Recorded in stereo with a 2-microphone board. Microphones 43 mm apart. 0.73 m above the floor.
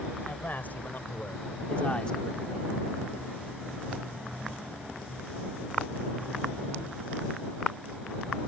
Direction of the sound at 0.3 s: 50° left (ahead or behind).